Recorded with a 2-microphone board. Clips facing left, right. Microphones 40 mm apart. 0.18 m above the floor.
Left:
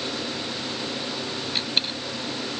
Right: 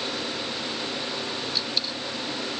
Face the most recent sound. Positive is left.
turn(degrees=45)  # may be behind; listen again after turning